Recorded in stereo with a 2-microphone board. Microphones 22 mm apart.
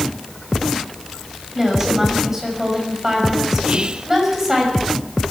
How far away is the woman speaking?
About 6 m.